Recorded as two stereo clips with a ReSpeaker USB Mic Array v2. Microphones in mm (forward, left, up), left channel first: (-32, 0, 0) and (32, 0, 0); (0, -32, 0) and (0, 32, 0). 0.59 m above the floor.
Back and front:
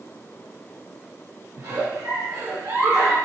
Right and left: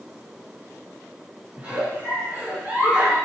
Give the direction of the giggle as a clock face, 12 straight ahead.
11 o'clock.